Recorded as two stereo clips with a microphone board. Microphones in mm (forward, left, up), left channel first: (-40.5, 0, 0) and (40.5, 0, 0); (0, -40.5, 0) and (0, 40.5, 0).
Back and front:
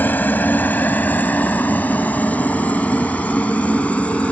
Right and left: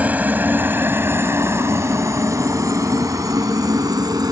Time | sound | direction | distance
0.0 | a helicopter | 140° left | ?